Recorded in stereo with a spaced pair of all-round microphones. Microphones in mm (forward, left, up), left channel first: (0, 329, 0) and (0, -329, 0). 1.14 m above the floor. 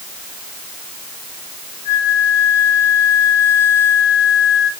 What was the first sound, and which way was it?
A flute, 30° left (ahead or behind).